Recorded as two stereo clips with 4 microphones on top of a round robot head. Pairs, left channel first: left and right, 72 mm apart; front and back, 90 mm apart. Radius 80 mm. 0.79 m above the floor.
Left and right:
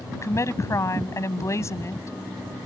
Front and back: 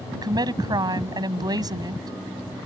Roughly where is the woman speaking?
Behind left.